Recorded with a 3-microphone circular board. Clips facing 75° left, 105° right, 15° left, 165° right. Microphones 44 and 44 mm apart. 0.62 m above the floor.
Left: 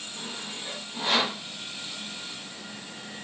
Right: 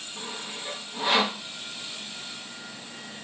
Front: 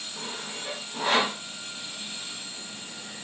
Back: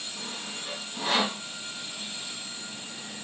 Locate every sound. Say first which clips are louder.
0.2 s sawing: right 1 dB, front 3 dB; 30° right, 0.7 m